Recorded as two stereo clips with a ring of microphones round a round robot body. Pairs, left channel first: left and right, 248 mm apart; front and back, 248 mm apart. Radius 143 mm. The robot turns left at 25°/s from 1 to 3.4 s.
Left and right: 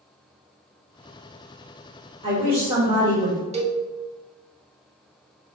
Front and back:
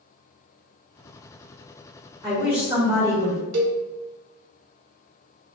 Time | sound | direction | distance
2.2 | a woman speaking | 125° right | 1.3 m
3.5 | a cowbell | 155° right | 0.6 m